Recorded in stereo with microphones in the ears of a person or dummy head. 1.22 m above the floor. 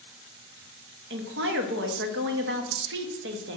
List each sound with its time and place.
1.1 s a woman speaking: 60° right (ahead or behind), 1.0 m